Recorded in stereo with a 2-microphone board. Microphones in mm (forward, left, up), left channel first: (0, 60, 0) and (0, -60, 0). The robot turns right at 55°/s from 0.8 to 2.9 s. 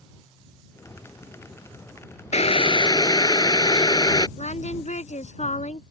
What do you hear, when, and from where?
2.3 s boiling: 110° left; by 4.3 s 145° left
4.4 s singing: 70° left (ahead or behind)